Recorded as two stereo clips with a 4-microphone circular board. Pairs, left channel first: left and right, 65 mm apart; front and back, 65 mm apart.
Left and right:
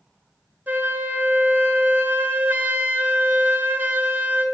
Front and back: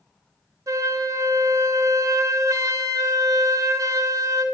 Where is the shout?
I don't hear a shout.